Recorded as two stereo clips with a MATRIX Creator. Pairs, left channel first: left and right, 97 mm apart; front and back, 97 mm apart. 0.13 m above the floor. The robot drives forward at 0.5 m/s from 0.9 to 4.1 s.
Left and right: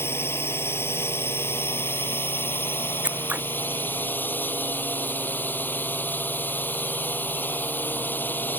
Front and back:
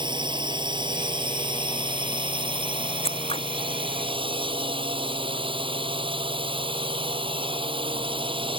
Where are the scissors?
15° right.